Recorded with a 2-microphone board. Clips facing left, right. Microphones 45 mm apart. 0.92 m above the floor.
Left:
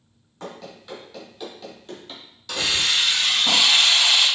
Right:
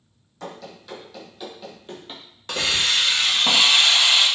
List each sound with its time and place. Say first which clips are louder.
0.4 s running footsteps: even; 20° left (ahead or behind), 1.6 m; by 2.2 s 30° right (ahead or behind), 1.0 m
2.5 s a hiss: right 1 dB; 40° right (ahead or behind), 0.8 m